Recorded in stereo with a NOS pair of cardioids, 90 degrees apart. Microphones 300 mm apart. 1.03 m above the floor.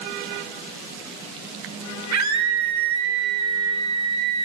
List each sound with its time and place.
2.1 s a scream: 65° right, 4 m